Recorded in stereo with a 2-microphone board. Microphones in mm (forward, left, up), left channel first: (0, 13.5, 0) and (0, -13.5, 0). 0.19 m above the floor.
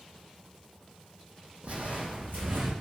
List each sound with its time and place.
1.6 s footsteps: 50° right (ahead or behind), 0.5 m; by 2.7 s 85° right, 1.1 m